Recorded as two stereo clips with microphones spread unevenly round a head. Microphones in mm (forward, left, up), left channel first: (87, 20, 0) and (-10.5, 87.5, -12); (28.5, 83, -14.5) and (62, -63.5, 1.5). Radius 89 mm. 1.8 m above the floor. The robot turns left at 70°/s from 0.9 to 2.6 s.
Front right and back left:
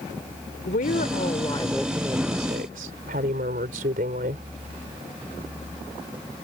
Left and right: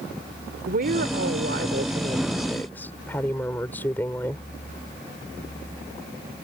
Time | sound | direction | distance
0.7 | a woman speaking | 55° right | ?